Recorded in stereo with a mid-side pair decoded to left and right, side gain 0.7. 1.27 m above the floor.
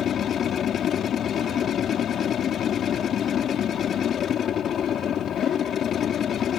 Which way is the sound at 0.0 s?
40° left.